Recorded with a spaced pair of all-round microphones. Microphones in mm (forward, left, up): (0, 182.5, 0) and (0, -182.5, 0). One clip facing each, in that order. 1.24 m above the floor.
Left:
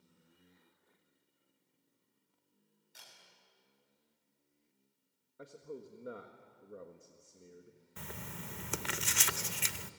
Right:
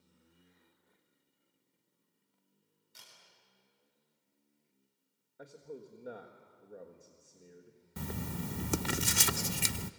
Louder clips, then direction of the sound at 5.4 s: Even; 5° left (ahead or behind).